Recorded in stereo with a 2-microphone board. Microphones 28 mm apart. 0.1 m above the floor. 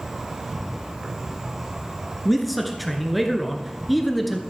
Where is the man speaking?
Centre (ahead or behind), 1.1 m.